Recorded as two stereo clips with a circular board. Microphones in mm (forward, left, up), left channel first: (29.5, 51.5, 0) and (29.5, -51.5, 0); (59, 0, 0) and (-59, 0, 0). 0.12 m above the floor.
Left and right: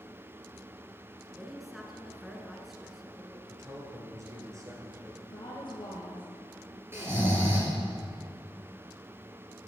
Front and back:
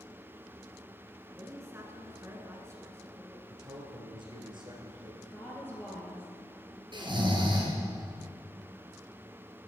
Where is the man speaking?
140° right, 2 m.